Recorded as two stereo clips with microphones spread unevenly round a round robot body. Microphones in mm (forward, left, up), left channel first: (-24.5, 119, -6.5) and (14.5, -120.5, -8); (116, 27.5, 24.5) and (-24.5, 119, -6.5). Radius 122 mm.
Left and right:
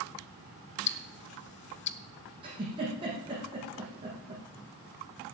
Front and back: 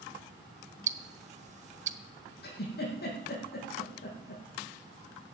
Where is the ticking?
130° left, 1.1 m.